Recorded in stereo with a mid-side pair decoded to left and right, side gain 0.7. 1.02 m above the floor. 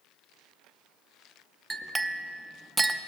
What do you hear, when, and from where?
1.7 s a clink: 10° right, 0.6 m